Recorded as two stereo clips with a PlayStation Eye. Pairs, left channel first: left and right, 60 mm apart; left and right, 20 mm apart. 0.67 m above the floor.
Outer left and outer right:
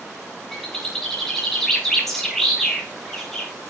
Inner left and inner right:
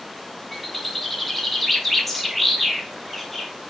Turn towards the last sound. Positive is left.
turn(degrees=0)  # may be behind; listen again after turning